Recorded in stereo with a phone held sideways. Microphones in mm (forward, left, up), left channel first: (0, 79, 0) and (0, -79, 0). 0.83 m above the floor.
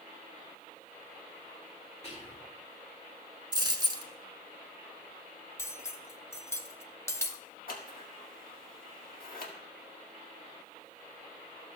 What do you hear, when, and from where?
2.0 s whispering: 45° left (ahead or behind), 1.9 m
3.5 s a dropped coin: 30° right (ahead or behind), 1.2 m
5.6 s cutlery clinking: 15° left (ahead or behind), 0.6 m
7.7 s scissors: 65° left (ahead or behind), 1.7 m